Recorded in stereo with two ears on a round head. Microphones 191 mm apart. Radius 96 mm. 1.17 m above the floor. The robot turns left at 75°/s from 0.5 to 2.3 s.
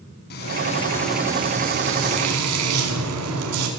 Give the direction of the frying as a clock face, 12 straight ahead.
10 o'clock.